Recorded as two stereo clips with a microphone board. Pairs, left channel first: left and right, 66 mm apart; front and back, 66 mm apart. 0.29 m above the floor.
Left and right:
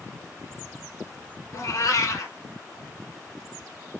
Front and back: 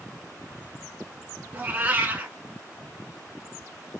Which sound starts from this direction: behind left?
A cat meowing, at 1.5 s.